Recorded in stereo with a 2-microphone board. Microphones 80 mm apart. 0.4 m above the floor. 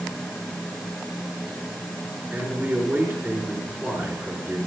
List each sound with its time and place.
2.3 s a man speaking: 20° right (ahead or behind), 4.5 m